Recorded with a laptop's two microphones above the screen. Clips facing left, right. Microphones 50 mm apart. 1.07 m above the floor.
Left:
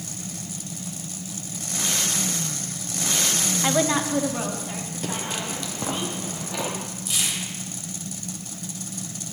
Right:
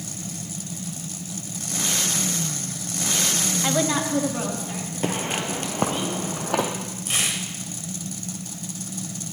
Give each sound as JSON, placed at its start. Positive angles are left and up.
{"t": 3.6, "sound": "a woman speaking", "side_deg": 10, "distance_m": 0.6}
{"t": 5.0, "sound": "footsteps", "side_deg": -35, "distance_m": 1.2}
{"t": 7.1, "sound": "tearing paper", "side_deg": -45, "distance_m": 1.4}